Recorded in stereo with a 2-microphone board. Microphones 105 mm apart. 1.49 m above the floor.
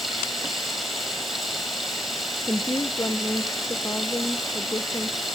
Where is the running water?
Centre (ahead or behind), 7.5 m.